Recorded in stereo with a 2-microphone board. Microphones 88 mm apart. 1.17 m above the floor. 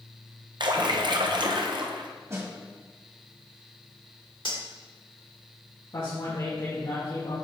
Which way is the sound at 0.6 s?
60° right (ahead or behind).